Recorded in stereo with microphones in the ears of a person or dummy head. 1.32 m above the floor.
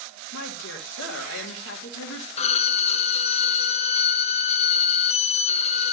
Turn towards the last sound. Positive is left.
turn(degrees=30)  # may be behind; listen again after turning